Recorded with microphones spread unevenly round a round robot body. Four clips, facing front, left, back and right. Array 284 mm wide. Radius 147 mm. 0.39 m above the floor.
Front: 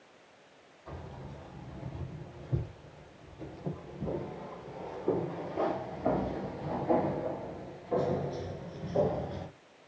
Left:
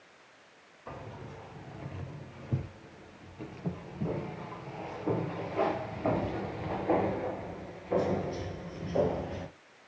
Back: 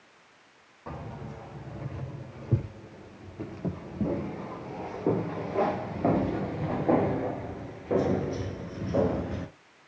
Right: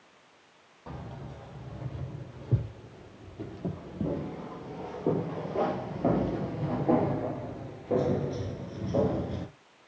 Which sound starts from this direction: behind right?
Keys jangling, at 0.9 s.